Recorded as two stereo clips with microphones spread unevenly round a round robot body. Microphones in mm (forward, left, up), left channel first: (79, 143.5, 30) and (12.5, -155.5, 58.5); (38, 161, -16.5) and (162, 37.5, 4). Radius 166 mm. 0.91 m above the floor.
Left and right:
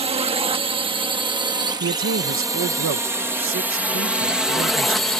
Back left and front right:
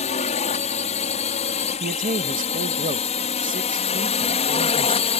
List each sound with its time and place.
0.0 s a drone: 175° right; by 5.2 s 160° left
1.8 s a man speaking: 70° right